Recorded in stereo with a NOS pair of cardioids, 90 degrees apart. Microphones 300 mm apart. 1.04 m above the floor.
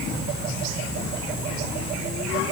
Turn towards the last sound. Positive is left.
No sound to turn to.